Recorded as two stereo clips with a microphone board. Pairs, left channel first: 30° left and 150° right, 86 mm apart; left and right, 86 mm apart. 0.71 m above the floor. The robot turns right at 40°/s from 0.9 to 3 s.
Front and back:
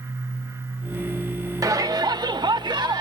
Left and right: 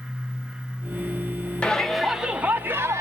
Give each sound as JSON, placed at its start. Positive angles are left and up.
{"t": 1.6, "sound": "a shout", "azimuth_deg": 165, "distance_m": 1.0}